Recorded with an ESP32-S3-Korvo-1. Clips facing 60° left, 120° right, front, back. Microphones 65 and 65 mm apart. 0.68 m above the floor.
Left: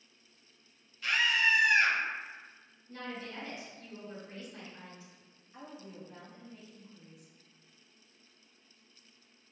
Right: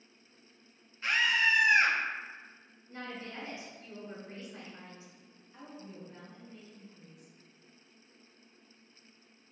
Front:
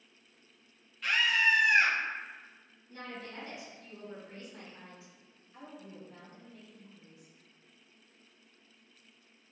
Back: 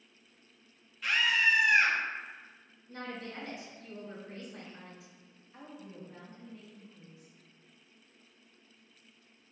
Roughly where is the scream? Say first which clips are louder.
Right 1 dB, even; right.